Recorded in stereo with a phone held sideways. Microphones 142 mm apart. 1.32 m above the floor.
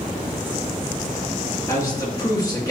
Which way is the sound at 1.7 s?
25° left (ahead or behind).